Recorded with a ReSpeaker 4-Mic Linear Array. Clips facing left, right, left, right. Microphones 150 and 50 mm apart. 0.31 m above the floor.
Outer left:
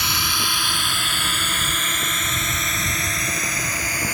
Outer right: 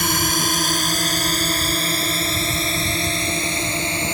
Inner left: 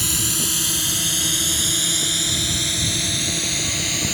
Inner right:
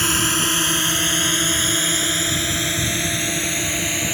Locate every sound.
0.0 s a drone: 45° right (ahead or behind); by 4.2 s 25° right (ahead or behind)